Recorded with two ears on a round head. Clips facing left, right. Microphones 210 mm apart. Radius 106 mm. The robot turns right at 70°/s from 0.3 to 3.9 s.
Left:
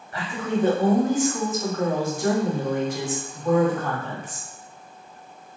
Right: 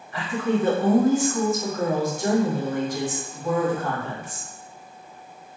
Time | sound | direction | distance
0.1 | a woman speaking | 90° left | 1.1 m